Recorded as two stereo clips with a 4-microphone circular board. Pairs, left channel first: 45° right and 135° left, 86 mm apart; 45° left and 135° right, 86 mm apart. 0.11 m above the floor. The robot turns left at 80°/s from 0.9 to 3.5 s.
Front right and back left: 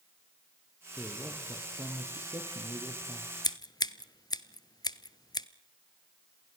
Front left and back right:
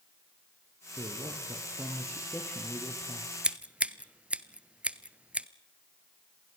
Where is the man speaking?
115° right, 3 m; by 3.3 s 55° left, 3 m.